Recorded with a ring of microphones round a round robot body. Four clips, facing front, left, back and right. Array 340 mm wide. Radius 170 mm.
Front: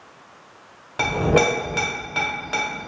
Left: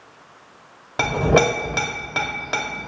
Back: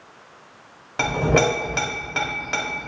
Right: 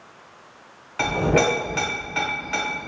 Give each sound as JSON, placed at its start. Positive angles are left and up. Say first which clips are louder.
{"t": 1.0, "sound": "a clink", "louder": "left 2 dB, front 1 dB", "azimuth_deg": 95, "distance_m": 0.7}